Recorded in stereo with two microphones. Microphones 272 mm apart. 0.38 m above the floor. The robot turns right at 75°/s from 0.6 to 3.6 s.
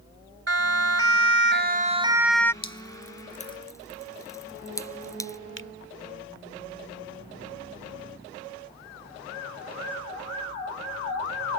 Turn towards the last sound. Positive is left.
turn(degrees=-45)  # may be behind; listen again after turning